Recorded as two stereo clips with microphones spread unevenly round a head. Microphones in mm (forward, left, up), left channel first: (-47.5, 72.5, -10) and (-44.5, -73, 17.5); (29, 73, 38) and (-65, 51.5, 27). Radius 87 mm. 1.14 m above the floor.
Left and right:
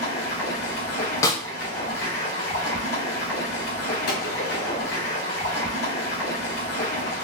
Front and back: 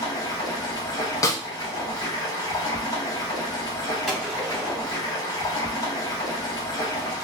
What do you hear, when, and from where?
0.0 s running water: 60° left, 1.5 m
1.2 s a snare drum: 15° left, 0.5 m
4.1 s a gunshot: 100° left, 2 m